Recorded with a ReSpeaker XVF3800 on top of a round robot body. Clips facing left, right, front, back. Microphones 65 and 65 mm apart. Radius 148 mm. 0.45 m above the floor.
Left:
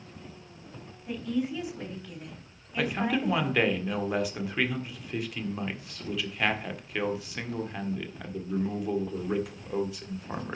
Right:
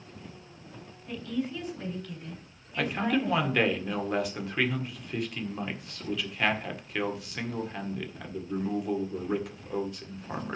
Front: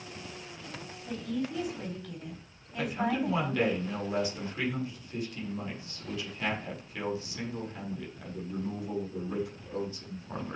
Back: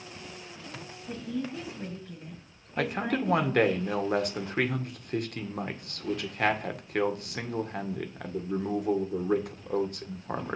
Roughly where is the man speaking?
Behind.